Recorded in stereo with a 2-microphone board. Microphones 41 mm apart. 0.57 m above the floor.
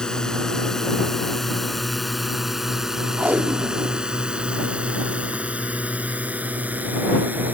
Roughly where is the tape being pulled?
Right.